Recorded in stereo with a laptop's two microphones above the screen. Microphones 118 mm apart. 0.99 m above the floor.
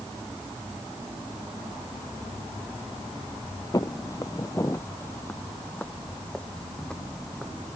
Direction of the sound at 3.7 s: 30° left (ahead or behind).